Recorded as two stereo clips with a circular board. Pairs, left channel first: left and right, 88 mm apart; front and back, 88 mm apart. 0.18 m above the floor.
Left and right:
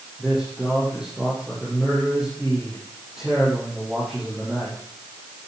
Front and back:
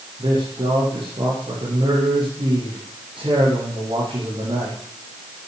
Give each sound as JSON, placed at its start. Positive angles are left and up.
{"t": 0.2, "sound": "a man speaking", "azimuth_deg": -175, "distance_m": 6.5}